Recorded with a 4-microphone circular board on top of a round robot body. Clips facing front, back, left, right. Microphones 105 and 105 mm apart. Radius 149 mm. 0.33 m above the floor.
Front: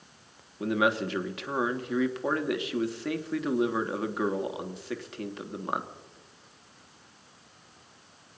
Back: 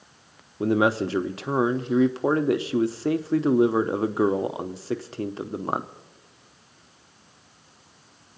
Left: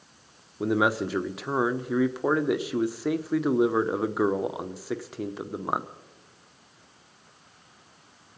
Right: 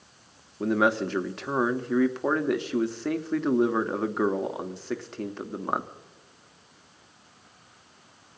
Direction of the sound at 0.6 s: 165° left.